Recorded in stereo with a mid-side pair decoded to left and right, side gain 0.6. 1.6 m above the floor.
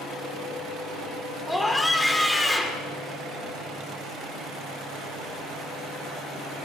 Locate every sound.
1.5 s a scream: 10° left, 6 m